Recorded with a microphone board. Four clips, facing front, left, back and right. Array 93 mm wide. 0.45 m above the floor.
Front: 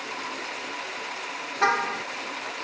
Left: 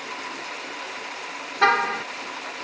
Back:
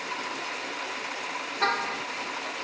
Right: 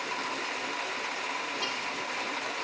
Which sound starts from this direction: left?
A car horn, at 1.6 s.